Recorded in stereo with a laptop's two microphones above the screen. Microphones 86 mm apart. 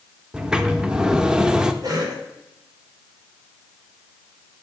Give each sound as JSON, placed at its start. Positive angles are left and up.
{"t": 0.3, "sound": "a sliding door", "side_deg": -10, "distance_m": 0.5}
{"t": 1.8, "sound": "a cough", "side_deg": -50, "distance_m": 3.0}